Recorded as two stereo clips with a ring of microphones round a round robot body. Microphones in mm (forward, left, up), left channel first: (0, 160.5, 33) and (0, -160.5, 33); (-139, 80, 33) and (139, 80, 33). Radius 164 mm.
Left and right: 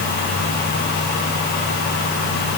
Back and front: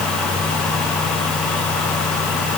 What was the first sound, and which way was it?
Only background noise.